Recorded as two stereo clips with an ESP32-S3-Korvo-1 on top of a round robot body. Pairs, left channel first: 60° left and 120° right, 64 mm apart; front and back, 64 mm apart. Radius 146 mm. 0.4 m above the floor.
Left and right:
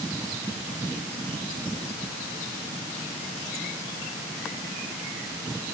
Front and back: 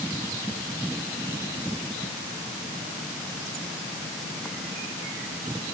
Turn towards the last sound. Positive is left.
No sound to turn to.